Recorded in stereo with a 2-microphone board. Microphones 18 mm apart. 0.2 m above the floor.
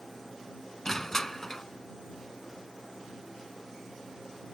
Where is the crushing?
25° left (ahead or behind).